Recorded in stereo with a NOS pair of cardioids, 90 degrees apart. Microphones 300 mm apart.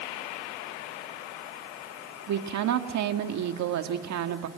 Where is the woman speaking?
65° right, 1.8 m.